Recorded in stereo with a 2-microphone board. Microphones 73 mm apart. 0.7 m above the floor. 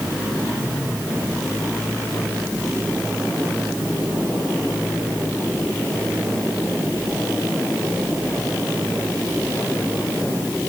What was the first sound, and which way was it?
Only background noise.